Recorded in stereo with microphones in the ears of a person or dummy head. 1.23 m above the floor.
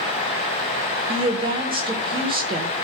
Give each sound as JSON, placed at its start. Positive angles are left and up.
{"t": 1.1, "sound": "a woman speaking", "side_deg": -25, "distance_m": 1.3}